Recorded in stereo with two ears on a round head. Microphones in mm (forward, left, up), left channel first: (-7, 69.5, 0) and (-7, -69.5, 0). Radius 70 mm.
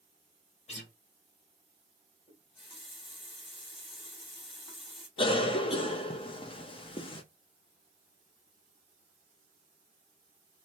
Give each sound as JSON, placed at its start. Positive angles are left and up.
{"t": 0.7, "sound": "a guitar", "side_deg": 45, "distance_m": 1.7}
{"t": 2.3, "sound": "a running tap", "side_deg": 35, "distance_m": 1.4}
{"t": 5.2, "sound": "a cough", "side_deg": 35, "distance_m": 0.6}